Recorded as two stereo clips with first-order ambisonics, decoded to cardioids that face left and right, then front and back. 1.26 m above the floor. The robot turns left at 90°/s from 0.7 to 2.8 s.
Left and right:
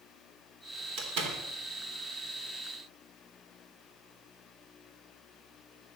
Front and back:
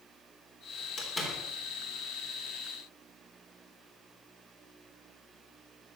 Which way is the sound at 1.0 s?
60° right.